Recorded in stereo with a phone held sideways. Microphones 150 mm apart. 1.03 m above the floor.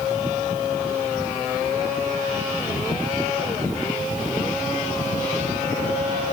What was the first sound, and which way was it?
Only background noise.